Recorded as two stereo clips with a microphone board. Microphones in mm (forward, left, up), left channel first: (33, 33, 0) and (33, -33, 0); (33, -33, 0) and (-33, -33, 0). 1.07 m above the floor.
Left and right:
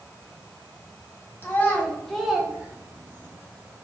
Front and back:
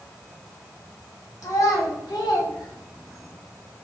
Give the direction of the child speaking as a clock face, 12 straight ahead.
11 o'clock.